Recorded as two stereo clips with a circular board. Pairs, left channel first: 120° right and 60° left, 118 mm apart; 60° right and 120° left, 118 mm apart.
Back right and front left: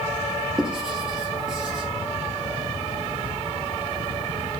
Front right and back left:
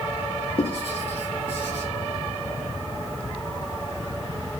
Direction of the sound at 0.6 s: 25° right.